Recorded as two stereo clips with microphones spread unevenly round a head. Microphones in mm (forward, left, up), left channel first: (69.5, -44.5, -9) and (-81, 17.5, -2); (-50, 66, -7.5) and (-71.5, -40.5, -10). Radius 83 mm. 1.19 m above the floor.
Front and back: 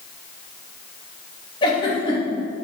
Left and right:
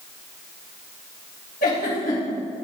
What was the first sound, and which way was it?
A giggle, 40° left.